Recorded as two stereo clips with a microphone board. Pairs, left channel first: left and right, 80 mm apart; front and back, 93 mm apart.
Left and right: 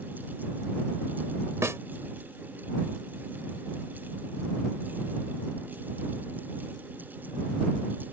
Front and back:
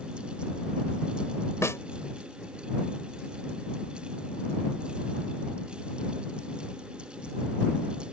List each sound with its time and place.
1.6 s a snare drum: 50° right